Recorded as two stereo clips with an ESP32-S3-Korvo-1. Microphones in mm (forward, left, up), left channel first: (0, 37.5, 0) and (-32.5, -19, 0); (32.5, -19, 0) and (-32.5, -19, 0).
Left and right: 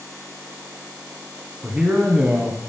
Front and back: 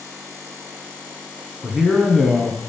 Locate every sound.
1.6 s a man speaking: 85° right, 1.1 m